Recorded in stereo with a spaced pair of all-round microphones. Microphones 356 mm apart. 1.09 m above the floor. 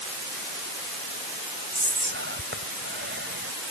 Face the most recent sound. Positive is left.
turn(degrees=-30)  # may be behind; listen again after turning